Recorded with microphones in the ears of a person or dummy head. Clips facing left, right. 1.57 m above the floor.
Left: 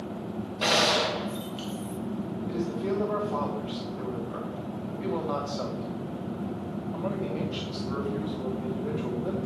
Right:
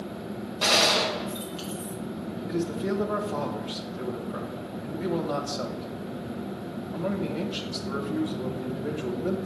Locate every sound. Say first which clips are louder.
0.6 s a gunshot: even; centre (ahead or behind), 0.7 m
2.5 s a man speaking: right 2 dB; 10° right (ahead or behind), 1.4 m